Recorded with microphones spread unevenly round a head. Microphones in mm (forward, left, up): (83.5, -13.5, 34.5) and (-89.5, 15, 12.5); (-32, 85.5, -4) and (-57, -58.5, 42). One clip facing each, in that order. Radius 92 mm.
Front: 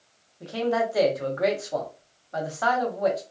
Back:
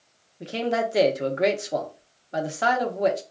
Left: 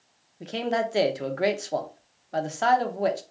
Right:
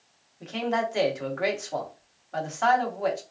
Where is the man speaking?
120° left, 0.7 m.